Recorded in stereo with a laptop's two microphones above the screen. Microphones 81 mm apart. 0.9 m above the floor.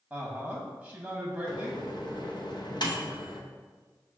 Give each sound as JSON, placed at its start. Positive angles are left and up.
{"t": 0.1, "sound": "a woman speaking", "side_deg": -10, "distance_m": 0.9}
{"t": 1.5, "sound": "a microwave", "side_deg": 60, "distance_m": 0.5}